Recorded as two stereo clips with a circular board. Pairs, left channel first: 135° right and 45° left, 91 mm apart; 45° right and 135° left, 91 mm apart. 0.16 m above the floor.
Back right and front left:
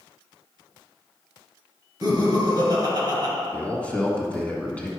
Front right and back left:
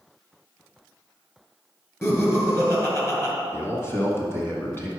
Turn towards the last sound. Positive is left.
turn(degrees=-75)